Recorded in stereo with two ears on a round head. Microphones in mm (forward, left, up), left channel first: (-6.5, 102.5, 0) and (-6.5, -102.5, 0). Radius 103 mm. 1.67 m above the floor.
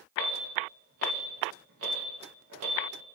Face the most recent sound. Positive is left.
turn(degrees=-65)  # may be behind; listen again after turning